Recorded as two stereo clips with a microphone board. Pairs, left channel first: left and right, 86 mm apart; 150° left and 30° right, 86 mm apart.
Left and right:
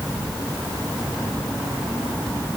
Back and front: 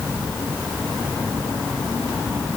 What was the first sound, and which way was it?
Only background noise.